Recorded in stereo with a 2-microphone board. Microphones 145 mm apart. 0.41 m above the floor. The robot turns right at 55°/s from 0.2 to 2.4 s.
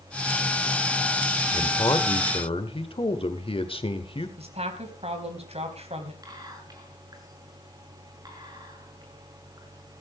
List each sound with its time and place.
1.5 s a man speaking: 45° left, 1.5 m; by 4.3 s 95° left, 1.5 m
4.4 s a woman speaking: 50° right (ahead or behind), 3 m
6.2 s whispering: 30° right (ahead or behind), 6 m